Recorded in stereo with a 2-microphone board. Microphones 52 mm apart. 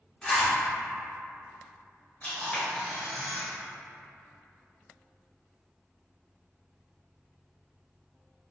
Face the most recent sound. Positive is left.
turn(degrees=25)  # may be behind; listen again after turning